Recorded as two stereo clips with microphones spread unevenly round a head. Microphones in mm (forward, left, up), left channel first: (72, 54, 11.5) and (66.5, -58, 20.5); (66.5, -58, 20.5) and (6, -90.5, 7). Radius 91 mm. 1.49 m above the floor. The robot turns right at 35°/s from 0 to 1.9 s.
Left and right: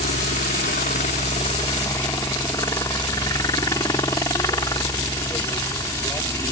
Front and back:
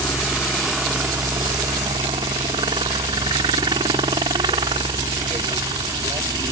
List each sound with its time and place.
0.0 s a helicopter: 95° left; by 6.5 s 160° left